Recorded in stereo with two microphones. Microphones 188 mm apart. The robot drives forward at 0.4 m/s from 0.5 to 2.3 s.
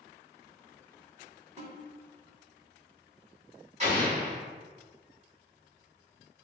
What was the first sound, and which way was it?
A snare drum, 40° right (ahead or behind).